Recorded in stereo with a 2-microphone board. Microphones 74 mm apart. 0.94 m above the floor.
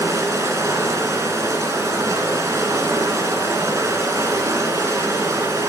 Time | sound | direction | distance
0.0 | running water | 45° right (ahead or behind) | 1.7 m